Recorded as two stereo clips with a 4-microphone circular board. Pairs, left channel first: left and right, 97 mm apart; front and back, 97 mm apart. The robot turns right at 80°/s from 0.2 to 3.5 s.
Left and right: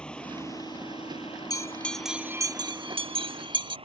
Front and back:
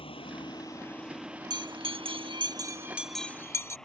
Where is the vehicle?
10° left; by 3.9 s 85° right.